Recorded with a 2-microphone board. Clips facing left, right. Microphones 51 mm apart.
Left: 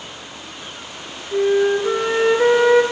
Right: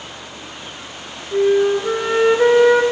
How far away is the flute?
About 0.9 m.